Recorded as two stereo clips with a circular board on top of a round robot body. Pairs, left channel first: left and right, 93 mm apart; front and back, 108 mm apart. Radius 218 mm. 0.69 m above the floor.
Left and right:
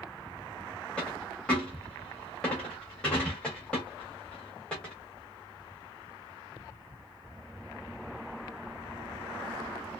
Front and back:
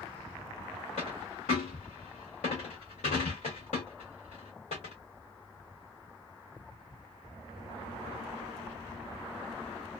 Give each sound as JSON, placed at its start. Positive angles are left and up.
{"t": 1.0, "sound": "a dropped coin", "azimuth_deg": 10, "distance_m": 0.6}